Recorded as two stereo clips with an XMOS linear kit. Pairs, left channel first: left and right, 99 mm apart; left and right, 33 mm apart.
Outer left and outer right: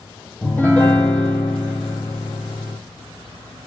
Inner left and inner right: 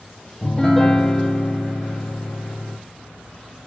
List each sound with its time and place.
0.4 s a piano: 15° left (ahead or behind), 0.8 m